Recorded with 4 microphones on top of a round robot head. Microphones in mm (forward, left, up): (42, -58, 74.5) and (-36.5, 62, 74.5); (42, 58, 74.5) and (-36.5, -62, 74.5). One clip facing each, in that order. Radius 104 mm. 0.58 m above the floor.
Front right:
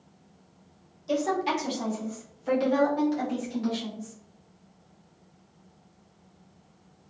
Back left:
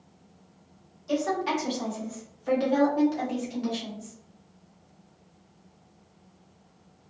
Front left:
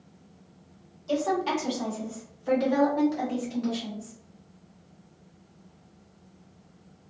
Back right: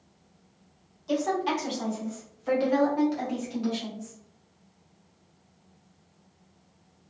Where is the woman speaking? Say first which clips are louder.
Even, front left 1 dB; 20° right, 1.3 m; by 4.2 s 175° left, 1.4 m.